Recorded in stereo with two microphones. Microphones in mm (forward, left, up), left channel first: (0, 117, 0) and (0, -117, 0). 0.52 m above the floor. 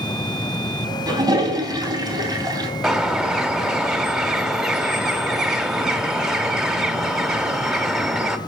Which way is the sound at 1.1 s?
15° right (ahead or behind).